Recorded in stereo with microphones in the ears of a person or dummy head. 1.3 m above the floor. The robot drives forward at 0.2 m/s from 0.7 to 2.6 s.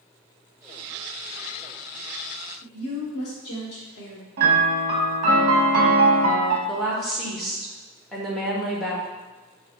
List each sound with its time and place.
2.6 s a woman speaking: 50° left (ahead or behind), 1.2 m
4.4 s a piano: 50° right (ahead or behind), 0.8 m
6.7 s a woman speaking: centre (ahead or behind), 1.0 m